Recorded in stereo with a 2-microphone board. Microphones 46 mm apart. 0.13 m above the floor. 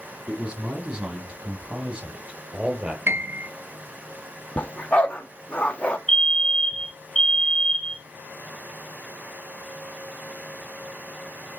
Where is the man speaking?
30° right (ahead or behind), 5 m; by 3.0 s 35° right (ahead or behind), 2.5 m.